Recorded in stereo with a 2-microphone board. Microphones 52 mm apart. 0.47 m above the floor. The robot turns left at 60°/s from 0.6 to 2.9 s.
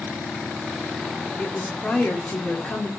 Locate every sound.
1.4 s a woman speaking: 20° left (ahead or behind), 0.8 m